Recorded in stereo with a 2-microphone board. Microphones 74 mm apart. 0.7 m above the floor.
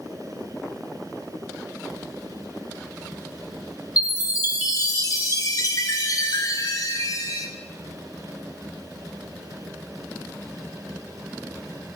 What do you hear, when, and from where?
4.0 s a chime: 60° left (ahead or behind), 2.5 m